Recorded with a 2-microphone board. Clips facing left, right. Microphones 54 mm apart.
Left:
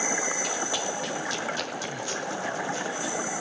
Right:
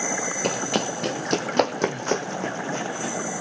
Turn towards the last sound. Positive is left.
turn(degrees=-40)  # may be behind; listen again after turning